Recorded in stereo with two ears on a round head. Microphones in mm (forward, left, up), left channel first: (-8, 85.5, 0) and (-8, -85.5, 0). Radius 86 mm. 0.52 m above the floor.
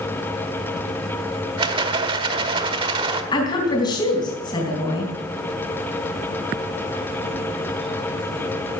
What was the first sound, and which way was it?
A rattle, 25° right (ahead or behind).